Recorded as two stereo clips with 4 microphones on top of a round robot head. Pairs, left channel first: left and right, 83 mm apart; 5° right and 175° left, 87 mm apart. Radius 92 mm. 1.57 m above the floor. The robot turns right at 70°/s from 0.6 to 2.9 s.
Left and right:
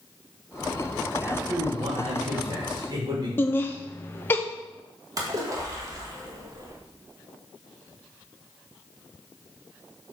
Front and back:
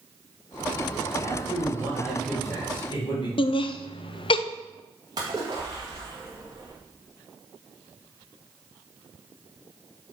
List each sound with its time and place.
1.2 s a man speaking: 160° right, 2 m; by 3.3 s 40° right, 2 m
3.4 s laughter: 20° left, 0.6 m
5.2 s a splash: 125° right, 1.1 m